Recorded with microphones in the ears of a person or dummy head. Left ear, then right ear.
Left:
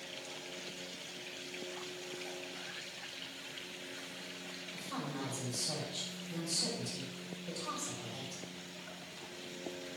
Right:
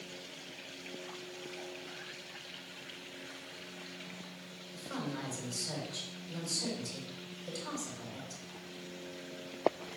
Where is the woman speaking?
80° right, 3.5 m.